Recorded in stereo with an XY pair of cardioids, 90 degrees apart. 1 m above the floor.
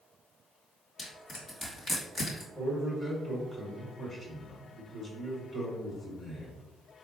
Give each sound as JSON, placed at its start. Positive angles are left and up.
{"t": 1.0, "sound": "crushing", "azimuth_deg": 40, "distance_m": 1.9}
{"t": 2.5, "sound": "a man speaking", "azimuth_deg": 30, "distance_m": 1.7}